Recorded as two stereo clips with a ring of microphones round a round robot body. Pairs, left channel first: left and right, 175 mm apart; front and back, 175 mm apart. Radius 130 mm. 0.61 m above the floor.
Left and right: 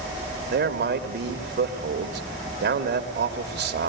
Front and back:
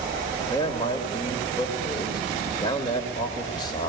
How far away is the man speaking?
About 2 m.